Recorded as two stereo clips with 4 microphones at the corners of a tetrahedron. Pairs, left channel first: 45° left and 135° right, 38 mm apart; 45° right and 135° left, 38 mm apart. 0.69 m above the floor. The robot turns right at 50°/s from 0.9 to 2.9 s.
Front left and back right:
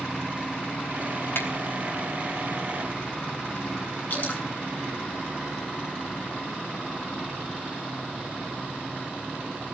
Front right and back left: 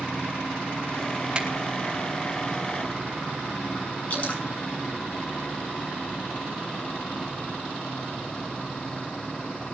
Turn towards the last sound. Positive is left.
turn(degrees=10)